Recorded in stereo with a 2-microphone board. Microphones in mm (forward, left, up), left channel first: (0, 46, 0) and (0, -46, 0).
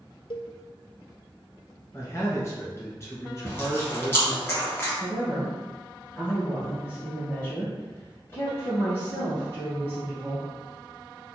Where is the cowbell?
70° left (ahead or behind), 0.5 m.